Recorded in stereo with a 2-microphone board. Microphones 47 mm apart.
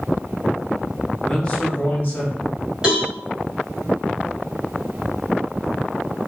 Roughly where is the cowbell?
Centre.